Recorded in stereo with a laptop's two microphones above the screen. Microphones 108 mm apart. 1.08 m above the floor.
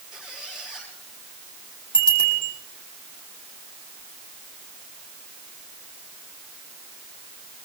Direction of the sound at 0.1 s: 5° right (ahead or behind).